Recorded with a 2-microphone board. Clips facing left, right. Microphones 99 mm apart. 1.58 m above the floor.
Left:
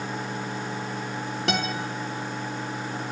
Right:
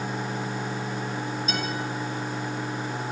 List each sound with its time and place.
1.5 s a guitar: 80° left, 3.5 m